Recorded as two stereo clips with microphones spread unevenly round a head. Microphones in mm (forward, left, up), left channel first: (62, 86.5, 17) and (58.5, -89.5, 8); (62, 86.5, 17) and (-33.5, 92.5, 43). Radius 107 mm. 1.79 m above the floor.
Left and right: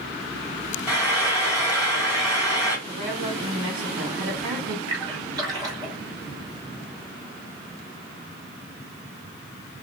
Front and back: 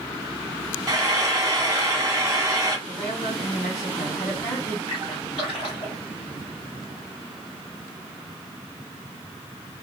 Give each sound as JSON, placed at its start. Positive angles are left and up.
{"t": 0.9, "sound": "frying", "azimuth_deg": -170, "distance_m": 2.0}
{"t": 2.9, "sound": "a woman speaking", "azimuth_deg": -135, "distance_m": 1.8}
{"t": 4.9, "sound": "a splash", "azimuth_deg": -35, "distance_m": 1.3}